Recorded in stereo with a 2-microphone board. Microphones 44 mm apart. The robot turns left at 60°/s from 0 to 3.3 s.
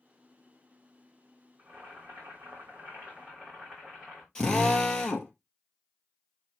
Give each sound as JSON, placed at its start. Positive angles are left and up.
{"t": 1.6, "sound": "boiling", "azimuth_deg": -55, "distance_m": 7.0}
{"t": 4.3, "sound": "a drill", "side_deg": 15, "distance_m": 1.8}